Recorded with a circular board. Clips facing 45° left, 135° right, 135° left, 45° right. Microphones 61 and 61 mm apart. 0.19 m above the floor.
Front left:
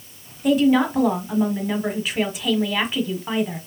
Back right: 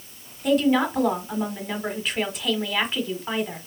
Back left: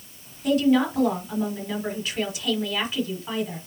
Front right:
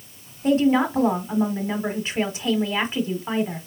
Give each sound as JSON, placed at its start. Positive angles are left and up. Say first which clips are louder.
{"t": 0.4, "sound": "a woman speaking", "louder": "front left 3 dB, front right 1 dB", "azimuth_deg": -40, "distance_m": 1.3}